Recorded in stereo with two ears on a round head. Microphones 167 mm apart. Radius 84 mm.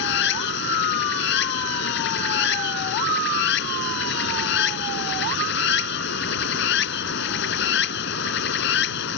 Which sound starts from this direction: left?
Running water, at 0.0 s.